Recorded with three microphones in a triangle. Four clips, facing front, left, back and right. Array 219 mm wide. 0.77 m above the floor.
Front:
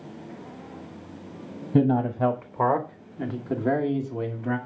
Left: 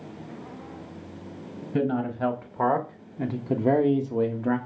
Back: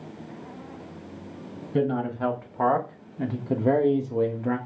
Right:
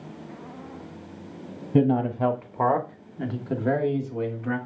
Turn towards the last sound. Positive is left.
turn(degrees=125)